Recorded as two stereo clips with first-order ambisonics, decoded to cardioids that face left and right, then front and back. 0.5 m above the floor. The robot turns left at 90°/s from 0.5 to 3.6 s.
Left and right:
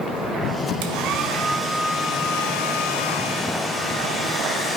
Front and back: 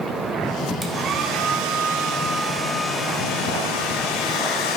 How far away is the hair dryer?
About 1.5 m.